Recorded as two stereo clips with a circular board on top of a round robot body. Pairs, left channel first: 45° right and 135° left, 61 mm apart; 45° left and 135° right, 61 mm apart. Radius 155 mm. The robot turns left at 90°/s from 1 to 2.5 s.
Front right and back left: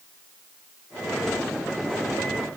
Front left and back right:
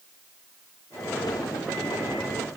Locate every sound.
Only background noise.